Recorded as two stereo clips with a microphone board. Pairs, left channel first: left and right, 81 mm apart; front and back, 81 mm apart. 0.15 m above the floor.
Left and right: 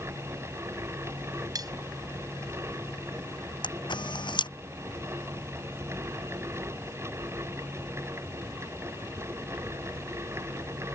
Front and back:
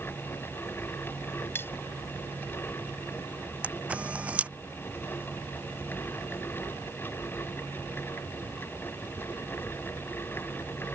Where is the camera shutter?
105° left.